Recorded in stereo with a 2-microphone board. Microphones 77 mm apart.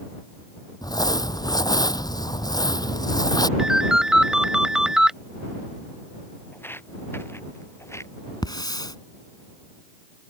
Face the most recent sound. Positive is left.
turn(degrees=65)  # may be behind; listen again after turning